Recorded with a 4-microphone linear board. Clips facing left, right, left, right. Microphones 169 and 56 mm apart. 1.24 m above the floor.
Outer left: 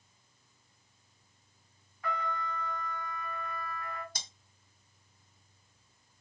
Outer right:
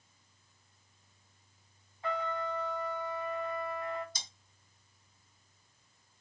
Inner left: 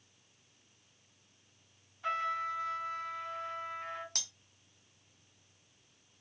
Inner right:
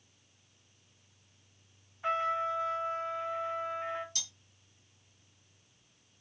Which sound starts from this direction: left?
Cutlery clinking, at 4.2 s.